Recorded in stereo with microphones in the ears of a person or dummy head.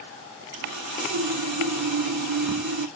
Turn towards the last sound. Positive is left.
turn(degrees=-90)